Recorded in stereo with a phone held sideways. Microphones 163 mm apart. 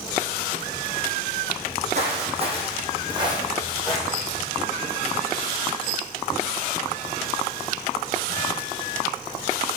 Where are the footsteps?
50° right (ahead or behind), 3 m; by 4.4 s 15° right (ahead or behind), 3.5 m.